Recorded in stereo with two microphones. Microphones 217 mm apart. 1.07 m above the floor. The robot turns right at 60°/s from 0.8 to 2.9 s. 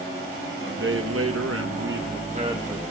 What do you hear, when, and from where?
0.6 s a man speaking: 125° right, 0.9 m; by 2.8 s 5° right, 0.9 m